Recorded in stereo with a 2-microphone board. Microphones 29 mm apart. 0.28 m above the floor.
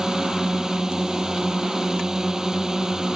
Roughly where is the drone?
Right.